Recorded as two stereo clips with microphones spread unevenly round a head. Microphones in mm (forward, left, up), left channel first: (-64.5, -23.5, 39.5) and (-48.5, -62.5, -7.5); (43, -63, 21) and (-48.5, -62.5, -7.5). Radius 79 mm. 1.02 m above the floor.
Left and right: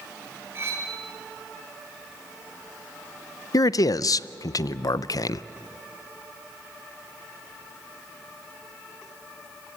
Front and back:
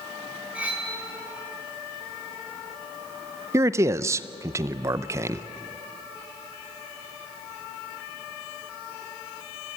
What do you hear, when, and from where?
0.6 s cutlery clinking: 100° right, 5.5 m
3.5 s a man speaking: 155° left, 0.6 m